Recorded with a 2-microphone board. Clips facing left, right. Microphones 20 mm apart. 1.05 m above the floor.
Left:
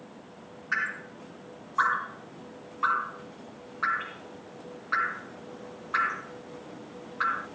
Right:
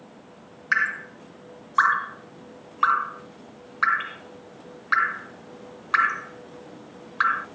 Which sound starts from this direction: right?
Dripping, at 0.7 s.